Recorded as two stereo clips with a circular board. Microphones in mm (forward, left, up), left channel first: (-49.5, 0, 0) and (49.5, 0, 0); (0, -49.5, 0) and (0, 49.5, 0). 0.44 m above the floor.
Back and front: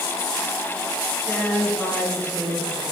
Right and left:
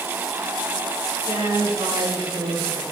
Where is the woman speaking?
100° left, 5.5 m; by 2.8 s 80° left, 4.5 m.